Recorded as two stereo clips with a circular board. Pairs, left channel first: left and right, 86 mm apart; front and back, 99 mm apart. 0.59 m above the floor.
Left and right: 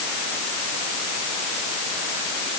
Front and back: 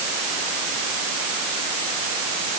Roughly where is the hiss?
I don't hear a hiss.